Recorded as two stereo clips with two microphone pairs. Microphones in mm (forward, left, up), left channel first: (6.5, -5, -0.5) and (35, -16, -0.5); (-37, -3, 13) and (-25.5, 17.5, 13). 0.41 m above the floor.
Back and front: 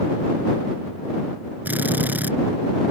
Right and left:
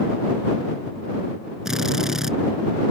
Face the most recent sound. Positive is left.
turn(degrees=-10)